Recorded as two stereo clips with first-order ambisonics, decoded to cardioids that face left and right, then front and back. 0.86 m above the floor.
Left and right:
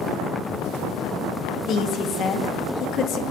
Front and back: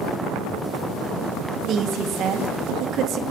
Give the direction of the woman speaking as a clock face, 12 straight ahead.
7 o'clock.